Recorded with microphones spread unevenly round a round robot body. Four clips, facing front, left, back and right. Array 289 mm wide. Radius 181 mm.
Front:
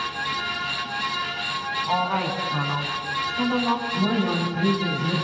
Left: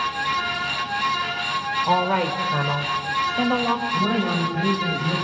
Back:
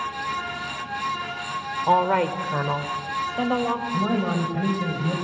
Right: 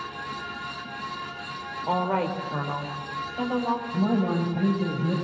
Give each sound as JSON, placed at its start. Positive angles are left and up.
{"t": 1.8, "sound": "a woman speaking", "azimuth_deg": 145, "distance_m": 3.0}
{"t": 3.9, "sound": "a man speaking", "azimuth_deg": -130, "distance_m": 5.0}